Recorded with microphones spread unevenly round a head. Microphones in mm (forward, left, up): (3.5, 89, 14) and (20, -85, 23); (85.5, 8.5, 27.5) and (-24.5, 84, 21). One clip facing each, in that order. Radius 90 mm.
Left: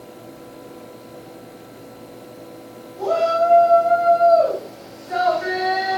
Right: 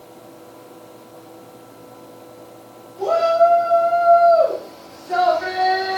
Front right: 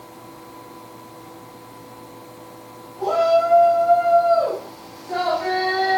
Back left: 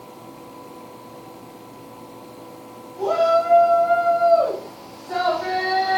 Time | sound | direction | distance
3.0 | a shout | 150° right | 10 m